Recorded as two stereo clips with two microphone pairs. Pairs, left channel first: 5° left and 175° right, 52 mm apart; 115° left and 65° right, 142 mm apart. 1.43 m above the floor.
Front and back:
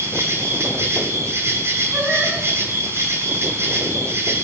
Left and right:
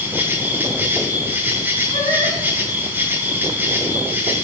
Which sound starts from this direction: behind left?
Singing, at 1.9 s.